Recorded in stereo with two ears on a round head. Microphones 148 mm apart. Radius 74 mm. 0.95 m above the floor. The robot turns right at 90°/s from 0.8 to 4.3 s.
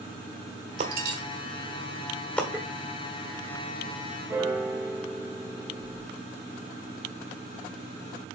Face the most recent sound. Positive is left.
turn(degrees=-15)  # may be behind; listen again after turning